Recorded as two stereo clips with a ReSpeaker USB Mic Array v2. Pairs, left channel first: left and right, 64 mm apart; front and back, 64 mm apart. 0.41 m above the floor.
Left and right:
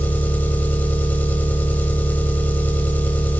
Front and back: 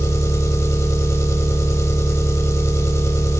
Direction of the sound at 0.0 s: 30° left.